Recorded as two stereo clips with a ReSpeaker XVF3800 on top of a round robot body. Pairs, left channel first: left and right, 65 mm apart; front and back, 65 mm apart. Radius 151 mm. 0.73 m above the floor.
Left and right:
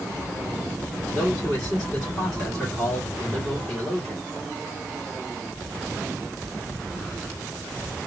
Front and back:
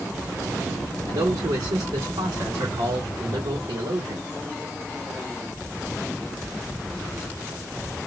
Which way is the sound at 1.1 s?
170° left.